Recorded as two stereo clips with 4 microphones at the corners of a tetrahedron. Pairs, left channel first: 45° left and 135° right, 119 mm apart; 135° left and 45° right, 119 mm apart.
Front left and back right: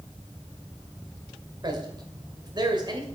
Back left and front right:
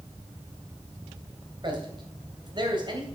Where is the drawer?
I don't hear a drawer.